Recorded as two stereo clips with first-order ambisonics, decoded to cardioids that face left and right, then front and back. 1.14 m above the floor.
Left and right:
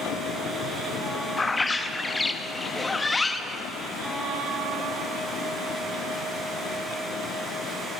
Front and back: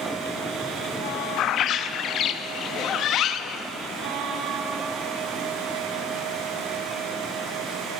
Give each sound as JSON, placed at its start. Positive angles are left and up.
{"t": 1.4, "sound": "a bird", "azimuth_deg": 20, "distance_m": 0.5}